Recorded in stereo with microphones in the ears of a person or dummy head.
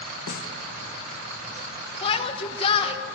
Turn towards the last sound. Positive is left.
turn(degrees=35)  # may be behind; listen again after turning